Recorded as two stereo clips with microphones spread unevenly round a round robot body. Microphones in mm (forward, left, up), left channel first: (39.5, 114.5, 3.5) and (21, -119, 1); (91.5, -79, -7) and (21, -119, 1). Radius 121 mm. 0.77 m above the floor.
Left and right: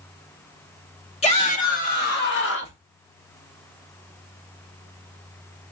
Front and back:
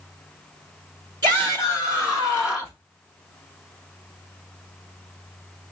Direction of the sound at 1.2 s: 150° left.